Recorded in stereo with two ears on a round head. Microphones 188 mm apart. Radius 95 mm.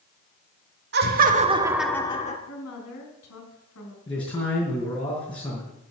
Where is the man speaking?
25° left (ahead or behind), 3.5 m.